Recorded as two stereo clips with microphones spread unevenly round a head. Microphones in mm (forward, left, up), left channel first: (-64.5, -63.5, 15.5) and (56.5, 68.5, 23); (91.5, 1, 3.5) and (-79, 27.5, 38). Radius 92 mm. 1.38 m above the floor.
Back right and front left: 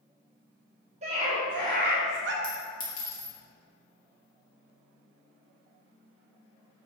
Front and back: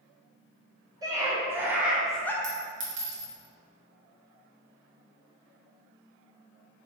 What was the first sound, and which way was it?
A scream, 105° left.